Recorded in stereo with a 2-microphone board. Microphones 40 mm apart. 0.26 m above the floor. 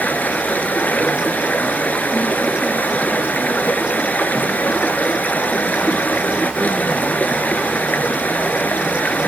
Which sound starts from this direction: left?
Running water, at 0.0 s.